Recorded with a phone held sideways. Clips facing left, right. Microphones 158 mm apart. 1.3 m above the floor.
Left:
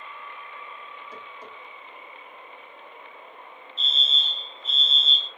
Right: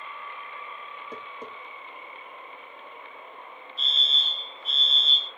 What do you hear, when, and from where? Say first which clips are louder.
1.1 s tapping: right 3 dB; 50° right (ahead or behind), 1.2 m
3.8 s a fire alarm: left 3 dB; 20° left (ahead or behind), 1.3 m